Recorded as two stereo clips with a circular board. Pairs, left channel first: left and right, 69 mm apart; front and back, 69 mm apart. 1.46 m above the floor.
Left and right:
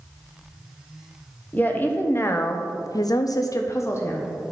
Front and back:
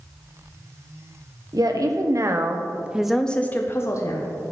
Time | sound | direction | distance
1.5 | a woman speaking | 155° left | 1.0 m